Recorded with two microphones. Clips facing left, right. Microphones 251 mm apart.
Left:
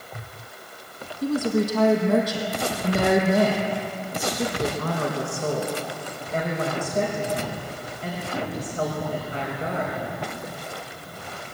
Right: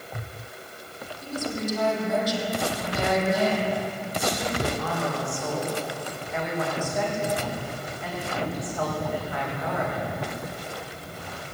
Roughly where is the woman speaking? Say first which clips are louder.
Left 8 dB; left.